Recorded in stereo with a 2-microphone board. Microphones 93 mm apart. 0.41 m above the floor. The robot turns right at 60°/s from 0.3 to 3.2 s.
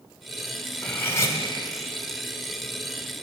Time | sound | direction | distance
0.8 | cutlery clinking | 15° left | 1.4 m